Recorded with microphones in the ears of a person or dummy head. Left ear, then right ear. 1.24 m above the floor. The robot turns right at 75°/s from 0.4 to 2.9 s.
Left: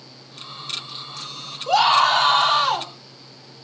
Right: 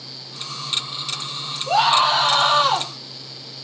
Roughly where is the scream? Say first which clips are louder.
Left 1 dB; left.